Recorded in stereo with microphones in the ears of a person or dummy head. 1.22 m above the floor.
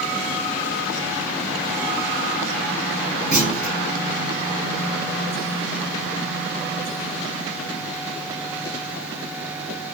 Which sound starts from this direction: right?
A clunk, at 3.3 s.